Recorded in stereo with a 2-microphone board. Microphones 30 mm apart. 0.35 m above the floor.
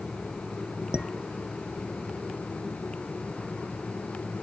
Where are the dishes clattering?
35° right (ahead or behind).